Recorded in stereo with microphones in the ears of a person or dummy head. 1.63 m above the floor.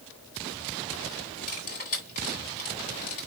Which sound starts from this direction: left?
Cutlery clinking, at 1.5 s.